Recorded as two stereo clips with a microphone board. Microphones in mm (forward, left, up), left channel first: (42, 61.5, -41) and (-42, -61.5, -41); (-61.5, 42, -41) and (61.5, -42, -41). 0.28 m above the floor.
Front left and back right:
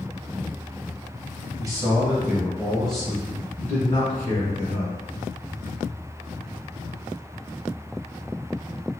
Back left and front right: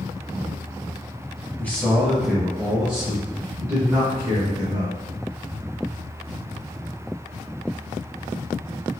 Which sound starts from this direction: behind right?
A man speaking, at 1.6 s.